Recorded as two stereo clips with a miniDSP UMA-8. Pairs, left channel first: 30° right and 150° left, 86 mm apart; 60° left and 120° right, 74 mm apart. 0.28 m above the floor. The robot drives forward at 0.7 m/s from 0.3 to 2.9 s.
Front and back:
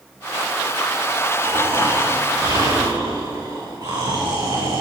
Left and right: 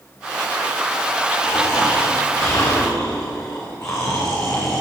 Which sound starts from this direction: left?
Snoring, at 1.4 s.